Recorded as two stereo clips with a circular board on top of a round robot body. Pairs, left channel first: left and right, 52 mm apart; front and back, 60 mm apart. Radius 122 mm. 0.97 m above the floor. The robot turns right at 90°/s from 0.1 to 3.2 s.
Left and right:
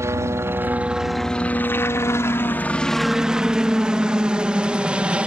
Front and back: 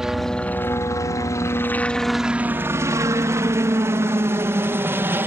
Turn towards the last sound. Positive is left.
turn(degrees=-150)